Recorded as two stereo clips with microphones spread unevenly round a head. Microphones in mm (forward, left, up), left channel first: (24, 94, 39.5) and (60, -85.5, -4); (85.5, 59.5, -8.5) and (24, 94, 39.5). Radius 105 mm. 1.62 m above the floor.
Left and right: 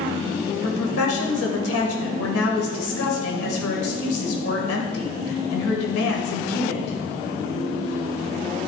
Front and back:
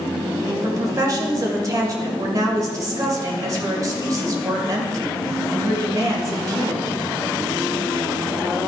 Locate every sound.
0.6 s a woman speaking: 110° left, 2 m